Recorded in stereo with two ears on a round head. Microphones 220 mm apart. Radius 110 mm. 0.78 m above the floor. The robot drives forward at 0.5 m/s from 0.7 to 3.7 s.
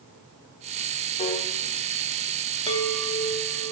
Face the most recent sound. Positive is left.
turn(degrees=15)  # may be behind; listen again after turning